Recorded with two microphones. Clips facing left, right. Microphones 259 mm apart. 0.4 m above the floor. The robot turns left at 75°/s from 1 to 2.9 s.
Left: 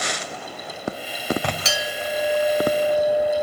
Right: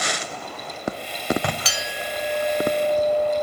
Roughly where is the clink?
Ahead left.